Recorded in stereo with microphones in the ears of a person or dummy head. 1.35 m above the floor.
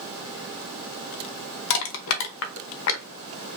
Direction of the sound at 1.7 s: 65° left (ahead or behind).